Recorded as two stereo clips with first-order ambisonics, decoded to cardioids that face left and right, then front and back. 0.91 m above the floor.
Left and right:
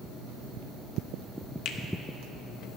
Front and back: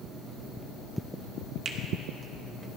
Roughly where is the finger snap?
Behind left.